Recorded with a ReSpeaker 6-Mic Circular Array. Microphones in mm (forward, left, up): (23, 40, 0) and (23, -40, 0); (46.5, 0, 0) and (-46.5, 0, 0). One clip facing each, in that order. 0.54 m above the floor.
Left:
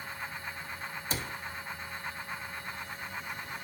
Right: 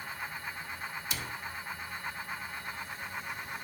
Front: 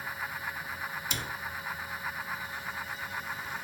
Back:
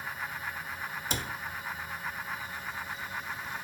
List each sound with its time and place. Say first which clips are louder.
1.1 s a cupboard door: left 2 dB, back 2 dB; 140° left, 0.9 m